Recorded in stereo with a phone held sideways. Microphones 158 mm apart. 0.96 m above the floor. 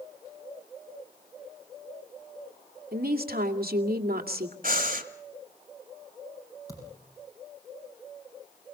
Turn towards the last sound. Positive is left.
turn(degrees=20)  # may be behind; listen again after turning